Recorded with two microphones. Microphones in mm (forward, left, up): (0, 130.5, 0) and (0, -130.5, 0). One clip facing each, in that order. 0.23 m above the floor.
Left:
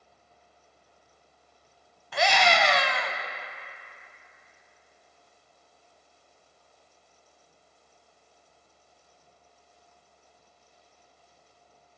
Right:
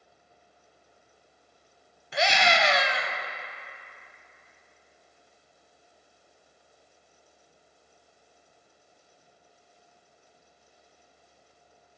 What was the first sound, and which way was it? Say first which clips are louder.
A scream: left 1 dB; 25° right (ahead or behind).